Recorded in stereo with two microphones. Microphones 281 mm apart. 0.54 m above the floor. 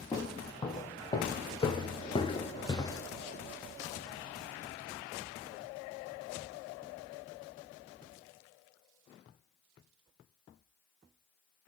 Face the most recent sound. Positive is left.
turn(degrees=10)  # may be behind; listen again after turning